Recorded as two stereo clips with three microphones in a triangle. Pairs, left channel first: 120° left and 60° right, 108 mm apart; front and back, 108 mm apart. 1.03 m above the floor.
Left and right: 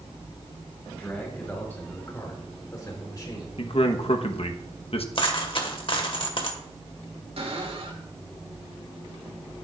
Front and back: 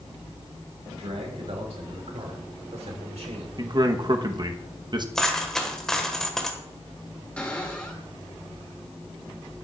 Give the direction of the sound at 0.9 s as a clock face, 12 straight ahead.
5 o'clock.